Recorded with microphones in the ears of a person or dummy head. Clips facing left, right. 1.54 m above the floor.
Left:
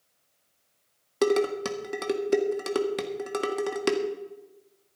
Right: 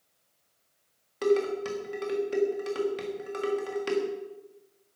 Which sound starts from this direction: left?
Dishes clattering, at 1.2 s.